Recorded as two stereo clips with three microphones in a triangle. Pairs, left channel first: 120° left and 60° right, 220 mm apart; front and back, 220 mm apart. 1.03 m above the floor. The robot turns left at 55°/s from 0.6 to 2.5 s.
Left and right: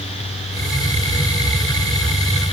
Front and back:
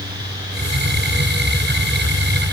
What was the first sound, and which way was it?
Only background noise.